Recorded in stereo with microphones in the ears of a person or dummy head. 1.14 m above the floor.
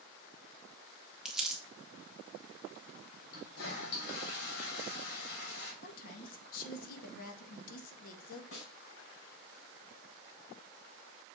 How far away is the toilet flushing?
About 2.5 m.